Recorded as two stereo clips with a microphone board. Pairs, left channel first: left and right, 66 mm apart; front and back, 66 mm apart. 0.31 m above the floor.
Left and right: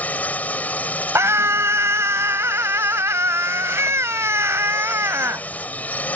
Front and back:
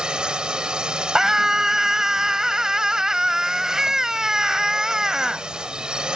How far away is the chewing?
No chewing in this recording.